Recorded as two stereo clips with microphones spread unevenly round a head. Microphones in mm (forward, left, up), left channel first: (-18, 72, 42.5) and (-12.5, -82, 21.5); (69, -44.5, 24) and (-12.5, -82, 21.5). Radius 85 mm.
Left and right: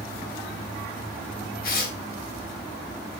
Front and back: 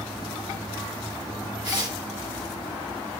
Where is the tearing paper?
125° left, 3.5 m.